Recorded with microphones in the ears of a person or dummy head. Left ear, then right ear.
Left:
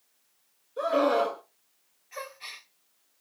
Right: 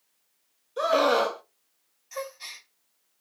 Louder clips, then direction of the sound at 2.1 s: Right 3 dB; 80° right.